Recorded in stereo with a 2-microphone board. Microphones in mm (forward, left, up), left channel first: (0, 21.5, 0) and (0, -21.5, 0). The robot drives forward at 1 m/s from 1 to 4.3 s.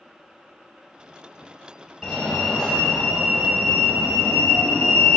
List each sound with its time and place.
2.0 s a fire alarm: 15° left (ahead or behind), 1.9 m; by 5.2 s 10° left (ahead or behind), 3.5 m